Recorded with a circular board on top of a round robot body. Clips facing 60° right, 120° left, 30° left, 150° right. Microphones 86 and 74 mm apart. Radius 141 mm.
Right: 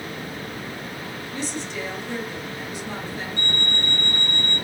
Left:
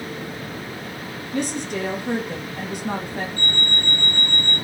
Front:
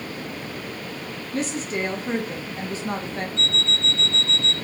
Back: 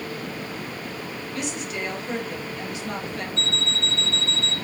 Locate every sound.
1.3 s a woman speaking: 85° left, 2 m
3.4 s an alarm clock: 55° right, 3.5 m